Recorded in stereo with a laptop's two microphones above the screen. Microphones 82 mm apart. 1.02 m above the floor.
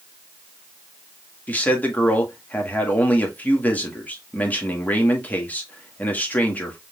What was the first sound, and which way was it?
A man speaking, 20° left (ahead or behind).